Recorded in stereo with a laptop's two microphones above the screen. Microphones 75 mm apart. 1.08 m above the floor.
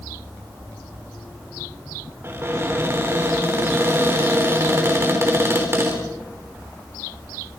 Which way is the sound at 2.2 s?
35° right (ahead or behind).